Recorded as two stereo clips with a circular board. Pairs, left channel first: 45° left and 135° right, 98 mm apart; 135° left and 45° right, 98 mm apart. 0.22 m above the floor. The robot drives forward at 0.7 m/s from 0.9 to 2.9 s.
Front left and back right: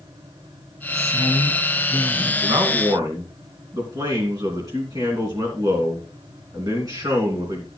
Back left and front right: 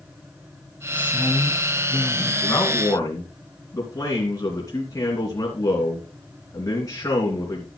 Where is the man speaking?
Straight behind, 2.5 m.